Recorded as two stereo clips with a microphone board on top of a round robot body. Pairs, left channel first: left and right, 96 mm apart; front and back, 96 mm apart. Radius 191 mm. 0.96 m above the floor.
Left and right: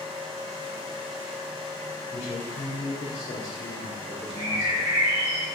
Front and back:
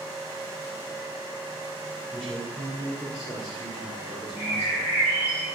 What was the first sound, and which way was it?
A man speaking, 90° left.